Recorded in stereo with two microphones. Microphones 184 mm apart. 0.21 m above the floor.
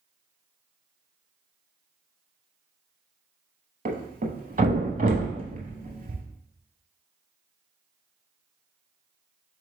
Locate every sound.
3.9 s a thud: 45° right (ahead or behind), 0.8 m